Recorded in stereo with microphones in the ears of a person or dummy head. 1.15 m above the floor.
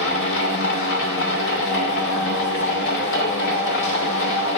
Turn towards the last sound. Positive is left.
turn(degrees=60)  # may be behind; listen again after turning